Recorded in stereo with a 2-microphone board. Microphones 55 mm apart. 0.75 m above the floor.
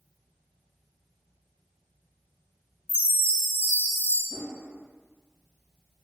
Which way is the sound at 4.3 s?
10° right (ahead or behind).